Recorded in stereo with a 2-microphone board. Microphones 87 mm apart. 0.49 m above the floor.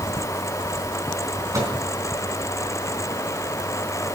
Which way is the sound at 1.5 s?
40° right (ahead or behind).